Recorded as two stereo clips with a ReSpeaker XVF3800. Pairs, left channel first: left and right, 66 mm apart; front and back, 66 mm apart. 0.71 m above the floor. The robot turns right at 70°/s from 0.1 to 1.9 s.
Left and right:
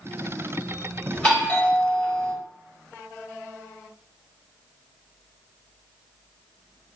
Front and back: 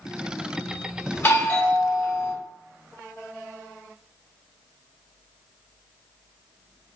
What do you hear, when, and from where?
1.1 s a doorbell: 10° left, 1.1 m; by 2.3 s 65° left, 1.1 m